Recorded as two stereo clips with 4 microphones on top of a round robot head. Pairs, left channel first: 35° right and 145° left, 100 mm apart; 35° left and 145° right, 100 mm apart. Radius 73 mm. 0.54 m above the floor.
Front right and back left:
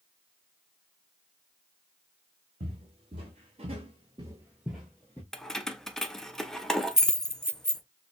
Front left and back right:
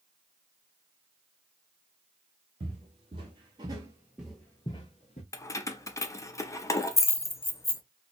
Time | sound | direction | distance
2.6 | footsteps | straight behind | 1.1 m
5.3 | keys jangling | 45° left | 0.5 m